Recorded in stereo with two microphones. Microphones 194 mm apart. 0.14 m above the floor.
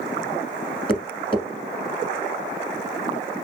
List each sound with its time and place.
0.9 s tapping: 30° left (ahead or behind), 1.3 m